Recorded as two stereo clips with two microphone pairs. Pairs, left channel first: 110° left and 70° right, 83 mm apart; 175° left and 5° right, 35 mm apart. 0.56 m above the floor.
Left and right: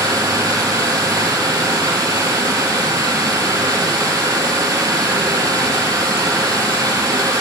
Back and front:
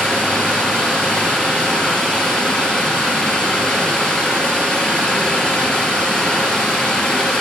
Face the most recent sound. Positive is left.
turn(degrees=-120)